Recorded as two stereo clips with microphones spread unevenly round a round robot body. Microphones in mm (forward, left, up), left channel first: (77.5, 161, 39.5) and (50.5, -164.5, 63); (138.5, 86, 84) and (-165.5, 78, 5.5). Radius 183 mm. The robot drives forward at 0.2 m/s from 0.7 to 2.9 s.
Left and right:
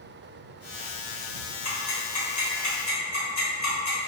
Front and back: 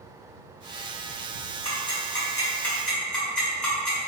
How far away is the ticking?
About 1.0 m.